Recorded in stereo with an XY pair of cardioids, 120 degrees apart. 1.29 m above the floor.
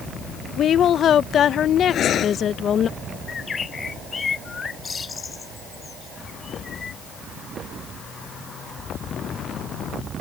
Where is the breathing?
55° left.